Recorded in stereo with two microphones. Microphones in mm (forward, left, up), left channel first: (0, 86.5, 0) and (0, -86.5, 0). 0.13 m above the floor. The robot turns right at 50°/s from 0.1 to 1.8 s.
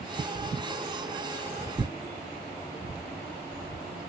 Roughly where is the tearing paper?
Right.